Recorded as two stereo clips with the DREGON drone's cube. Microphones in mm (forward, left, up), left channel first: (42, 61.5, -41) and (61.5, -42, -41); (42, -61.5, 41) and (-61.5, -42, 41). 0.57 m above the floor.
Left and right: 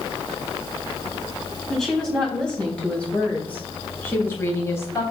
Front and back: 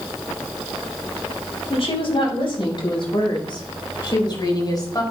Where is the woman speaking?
15° left, 4 m; by 5.0 s 40° left, 3.5 m.